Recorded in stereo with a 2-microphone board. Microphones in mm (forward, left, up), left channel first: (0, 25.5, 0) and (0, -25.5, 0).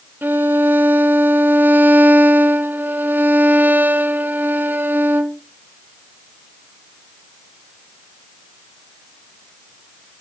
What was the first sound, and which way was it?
A violin, 45° right (ahead or behind).